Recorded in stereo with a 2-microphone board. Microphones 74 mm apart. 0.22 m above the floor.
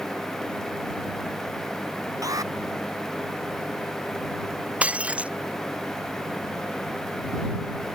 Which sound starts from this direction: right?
An alarm, at 2.2 s.